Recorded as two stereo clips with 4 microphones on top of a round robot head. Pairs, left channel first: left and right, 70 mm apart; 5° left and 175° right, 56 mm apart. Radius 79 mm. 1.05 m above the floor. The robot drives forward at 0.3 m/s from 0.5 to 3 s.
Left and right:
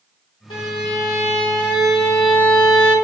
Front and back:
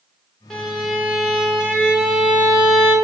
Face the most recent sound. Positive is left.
turn(degrees=135)